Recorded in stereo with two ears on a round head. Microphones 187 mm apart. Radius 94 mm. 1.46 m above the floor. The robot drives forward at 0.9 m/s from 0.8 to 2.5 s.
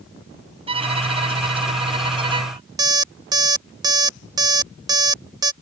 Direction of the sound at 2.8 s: 20° right (ahead or behind).